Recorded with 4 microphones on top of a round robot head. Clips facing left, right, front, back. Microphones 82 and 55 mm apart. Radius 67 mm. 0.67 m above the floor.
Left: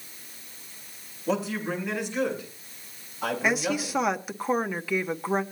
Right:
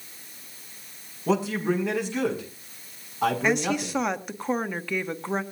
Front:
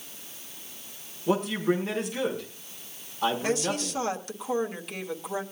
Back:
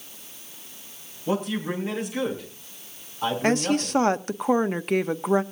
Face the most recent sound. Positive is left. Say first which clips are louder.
# right 2 dB, back 5 dB
turn(degrees=175)